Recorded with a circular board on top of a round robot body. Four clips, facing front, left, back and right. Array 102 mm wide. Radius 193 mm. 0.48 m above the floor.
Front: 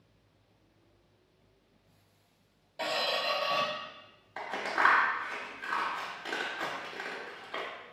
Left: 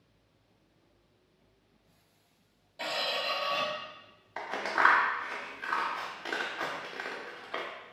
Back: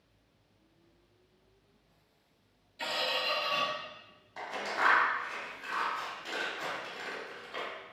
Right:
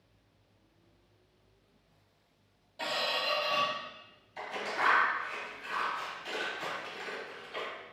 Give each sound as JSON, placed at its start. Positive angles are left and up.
{"t": 2.8, "sound": "a squeak", "azimuth_deg": 5, "distance_m": 0.7}
{"t": 4.4, "sound": "scissors", "azimuth_deg": 70, "distance_m": 0.6}